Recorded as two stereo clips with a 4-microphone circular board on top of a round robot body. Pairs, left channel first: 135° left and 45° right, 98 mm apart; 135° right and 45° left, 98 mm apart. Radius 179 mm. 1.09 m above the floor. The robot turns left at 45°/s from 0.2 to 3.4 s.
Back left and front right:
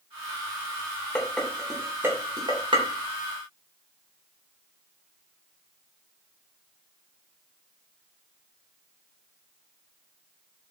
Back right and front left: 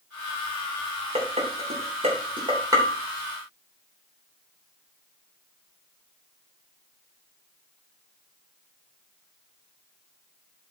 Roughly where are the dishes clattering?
Ahead left.